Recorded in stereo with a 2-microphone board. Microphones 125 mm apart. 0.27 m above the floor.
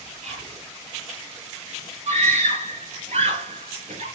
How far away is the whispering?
About 7 m.